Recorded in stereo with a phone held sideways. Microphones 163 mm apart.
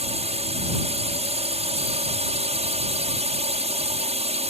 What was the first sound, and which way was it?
A drone, 35° right (ahead or behind).